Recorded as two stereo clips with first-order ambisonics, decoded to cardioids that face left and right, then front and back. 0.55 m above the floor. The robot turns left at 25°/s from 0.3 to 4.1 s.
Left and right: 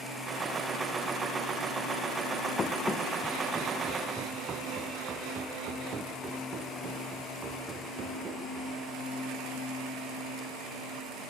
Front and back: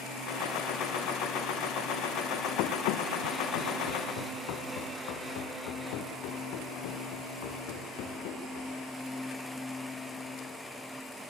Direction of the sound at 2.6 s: 20° left.